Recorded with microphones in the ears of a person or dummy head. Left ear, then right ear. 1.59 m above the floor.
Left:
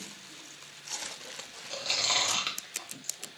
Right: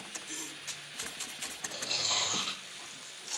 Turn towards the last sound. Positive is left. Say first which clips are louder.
# left 4 dB
turn(degrees=40)  # may be behind; listen again after turning